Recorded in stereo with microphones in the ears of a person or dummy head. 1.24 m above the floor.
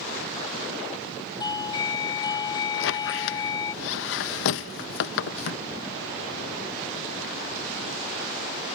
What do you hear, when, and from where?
1.4 s a doorbell: 25° left (ahead or behind)
2.7 s a squeak: 65° left (ahead or behind)